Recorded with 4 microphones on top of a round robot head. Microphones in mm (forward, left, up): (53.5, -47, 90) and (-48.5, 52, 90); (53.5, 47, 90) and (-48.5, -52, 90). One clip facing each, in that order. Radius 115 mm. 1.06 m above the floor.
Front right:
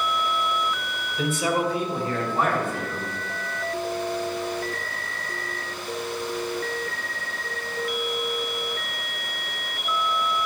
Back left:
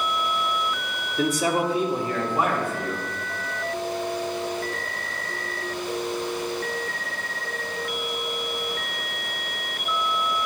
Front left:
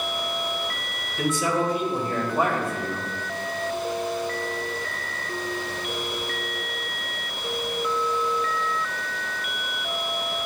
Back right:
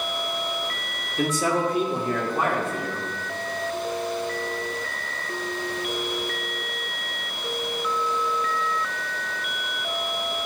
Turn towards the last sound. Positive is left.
turn(degrees=-140)